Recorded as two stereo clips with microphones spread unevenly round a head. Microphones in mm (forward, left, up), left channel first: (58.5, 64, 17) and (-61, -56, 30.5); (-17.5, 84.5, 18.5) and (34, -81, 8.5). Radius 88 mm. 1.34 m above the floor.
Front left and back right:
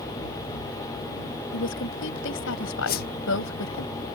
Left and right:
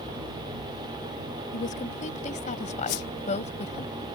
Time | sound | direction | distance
1.5 | a woman speaking | 60° left | ?
2.9 | a whoosh | 80° left | ?